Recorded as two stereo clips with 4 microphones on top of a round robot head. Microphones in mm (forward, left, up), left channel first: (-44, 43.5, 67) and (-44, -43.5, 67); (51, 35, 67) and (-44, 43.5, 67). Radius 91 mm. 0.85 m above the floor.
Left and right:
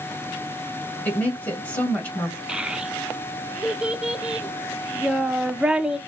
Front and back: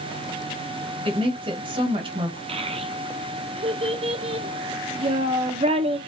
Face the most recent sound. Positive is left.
turn(degrees=-170)